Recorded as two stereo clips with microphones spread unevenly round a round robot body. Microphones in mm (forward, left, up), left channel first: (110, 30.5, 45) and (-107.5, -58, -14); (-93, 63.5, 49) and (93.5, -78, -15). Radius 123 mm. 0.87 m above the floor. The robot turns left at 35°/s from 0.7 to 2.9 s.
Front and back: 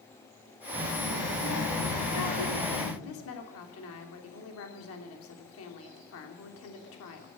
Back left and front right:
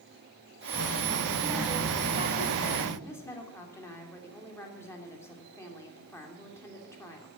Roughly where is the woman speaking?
Ahead left.